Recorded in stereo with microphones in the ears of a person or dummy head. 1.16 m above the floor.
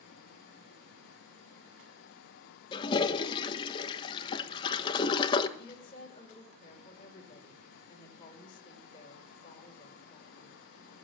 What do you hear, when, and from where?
2.7 s a toilet flushing: 30° left (ahead or behind), 1.1 m
5.6 s a woman speaking: 30° left (ahead or behind), 5 m